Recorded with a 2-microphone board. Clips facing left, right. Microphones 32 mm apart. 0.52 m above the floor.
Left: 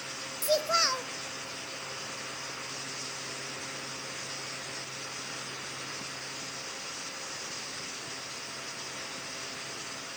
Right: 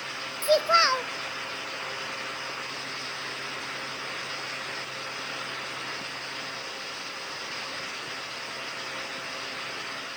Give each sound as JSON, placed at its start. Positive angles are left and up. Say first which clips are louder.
{"t": 0.4, "sound": "a child speaking", "louder": "right 6 dB", "side_deg": -30, "distance_m": 0.6}